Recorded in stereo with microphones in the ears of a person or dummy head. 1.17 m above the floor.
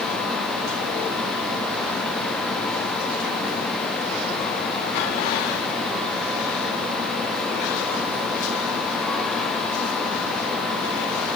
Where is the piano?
No piano in this recording.